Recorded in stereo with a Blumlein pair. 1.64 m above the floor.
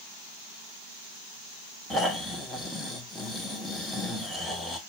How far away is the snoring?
About 1.1 m.